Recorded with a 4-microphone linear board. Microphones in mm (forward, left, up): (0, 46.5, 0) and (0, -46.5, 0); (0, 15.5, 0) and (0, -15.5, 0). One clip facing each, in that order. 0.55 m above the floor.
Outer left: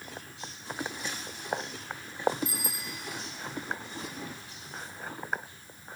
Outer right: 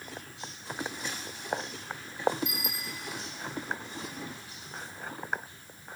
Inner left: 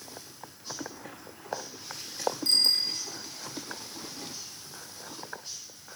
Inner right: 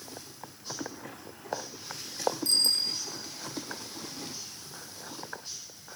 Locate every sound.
2.5 s a bicycle bell: 35° left (ahead or behind), 4 m